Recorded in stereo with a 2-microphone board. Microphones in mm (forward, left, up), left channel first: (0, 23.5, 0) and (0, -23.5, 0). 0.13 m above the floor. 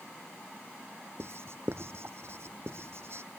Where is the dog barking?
I don't hear a dog barking.